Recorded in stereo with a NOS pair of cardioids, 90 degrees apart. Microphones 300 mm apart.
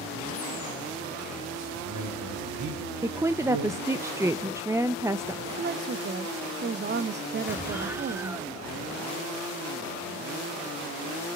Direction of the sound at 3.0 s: 10° right.